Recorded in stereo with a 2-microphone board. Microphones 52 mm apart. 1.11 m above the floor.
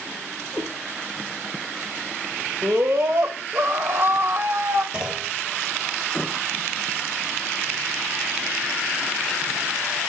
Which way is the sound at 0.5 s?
35° left (ahead or behind).